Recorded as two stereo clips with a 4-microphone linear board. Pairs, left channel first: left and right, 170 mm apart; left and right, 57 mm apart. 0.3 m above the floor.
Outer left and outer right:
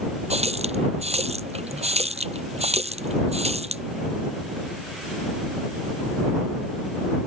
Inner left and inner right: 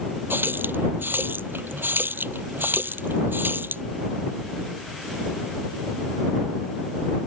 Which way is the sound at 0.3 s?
40° right (ahead or behind).